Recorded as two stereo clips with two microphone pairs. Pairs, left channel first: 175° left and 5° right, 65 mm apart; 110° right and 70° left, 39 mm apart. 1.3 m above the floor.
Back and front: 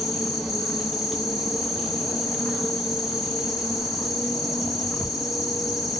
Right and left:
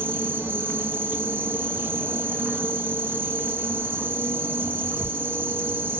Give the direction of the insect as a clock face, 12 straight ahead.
9 o'clock.